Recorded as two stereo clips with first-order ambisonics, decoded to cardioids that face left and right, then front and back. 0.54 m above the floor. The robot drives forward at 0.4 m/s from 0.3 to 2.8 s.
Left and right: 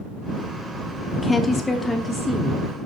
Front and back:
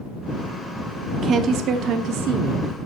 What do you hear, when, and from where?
1.2 s a woman speaking: 160° left, 0.7 m; by 2.7 s 175° left, 1.1 m